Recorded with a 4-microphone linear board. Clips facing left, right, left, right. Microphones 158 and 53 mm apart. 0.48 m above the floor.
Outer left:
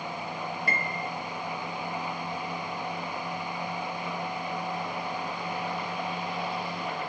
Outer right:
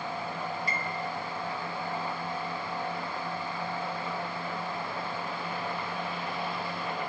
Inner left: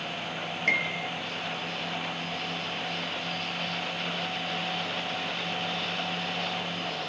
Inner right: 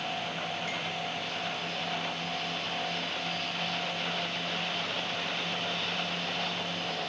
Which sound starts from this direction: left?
A piano, at 0.7 s.